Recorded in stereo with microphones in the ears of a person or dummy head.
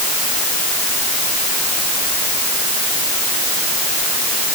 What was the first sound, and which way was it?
Only background noise.